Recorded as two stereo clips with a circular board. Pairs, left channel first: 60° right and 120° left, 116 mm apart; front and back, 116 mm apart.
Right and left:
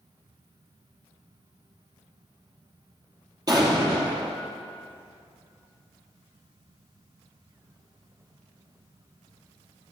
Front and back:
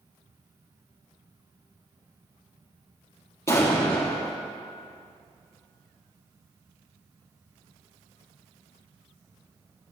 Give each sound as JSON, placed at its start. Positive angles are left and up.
{"t": 3.5, "sound": "an explosion", "azimuth_deg": 65, "distance_m": 2.0}